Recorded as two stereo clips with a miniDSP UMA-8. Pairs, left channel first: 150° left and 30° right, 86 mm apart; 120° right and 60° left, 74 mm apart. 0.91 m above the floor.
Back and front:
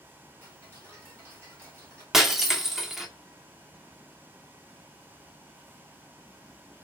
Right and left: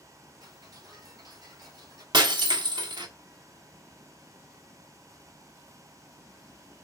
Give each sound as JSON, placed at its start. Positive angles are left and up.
{"t": 0.4, "sound": "ticking", "azimuth_deg": 30, "distance_m": 3.5}
{"t": 2.1, "sound": "breaking glass", "azimuth_deg": 55, "distance_m": 1.3}